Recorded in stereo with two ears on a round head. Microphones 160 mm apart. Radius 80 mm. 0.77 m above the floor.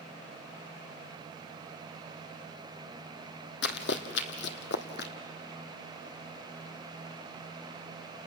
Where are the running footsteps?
65° left (ahead or behind), 1.7 m; by 5.1 s 55° left (ahead or behind), 1.9 m.